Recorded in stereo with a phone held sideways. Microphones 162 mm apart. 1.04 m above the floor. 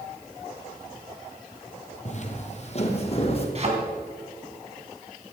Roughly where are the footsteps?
Left.